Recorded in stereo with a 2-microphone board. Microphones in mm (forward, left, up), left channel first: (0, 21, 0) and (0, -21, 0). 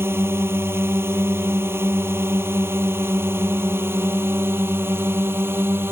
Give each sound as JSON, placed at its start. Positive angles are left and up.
{"t": 0.0, "sound": "a drone", "side_deg": -70}